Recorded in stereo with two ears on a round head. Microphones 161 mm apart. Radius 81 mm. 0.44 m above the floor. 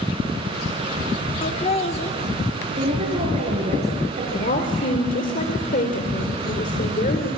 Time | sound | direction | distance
1.4 | laughter | 35° left (ahead or behind) | 1.0 m
2.8 | a woman speaking | 40° right (ahead or behind) | 7 m
4.3 | a woman speaking | 45° left (ahead or behind) | 1.7 m